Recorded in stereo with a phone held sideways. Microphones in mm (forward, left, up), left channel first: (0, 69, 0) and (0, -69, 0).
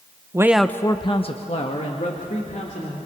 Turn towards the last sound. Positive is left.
turn(degrees=60)  # may be behind; listen again after turning